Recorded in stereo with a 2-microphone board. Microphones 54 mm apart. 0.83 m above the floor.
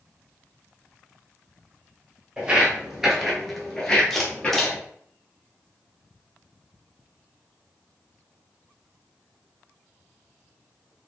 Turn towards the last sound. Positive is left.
turn(degrees=5)  # may be behind; listen again after turning